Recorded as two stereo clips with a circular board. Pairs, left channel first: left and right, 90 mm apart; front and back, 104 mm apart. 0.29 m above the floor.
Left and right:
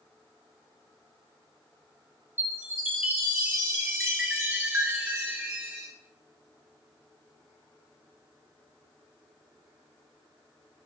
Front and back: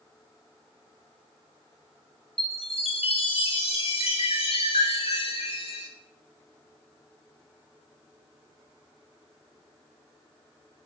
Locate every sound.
2.4 s a chime: 25° right, 1.1 m